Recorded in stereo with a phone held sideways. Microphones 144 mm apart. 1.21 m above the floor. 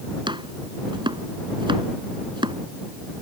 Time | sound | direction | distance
0.3 | chopping | 35° right (ahead or behind) | ?